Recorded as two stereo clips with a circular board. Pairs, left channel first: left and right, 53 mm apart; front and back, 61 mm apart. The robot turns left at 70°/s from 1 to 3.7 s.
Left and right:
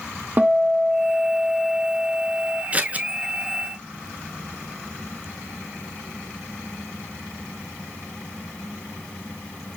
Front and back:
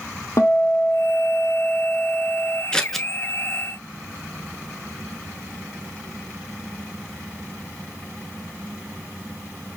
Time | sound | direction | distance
0.4 | a guitar | 40° right | 1.0 m
2.7 | scissors | 60° right | 0.6 m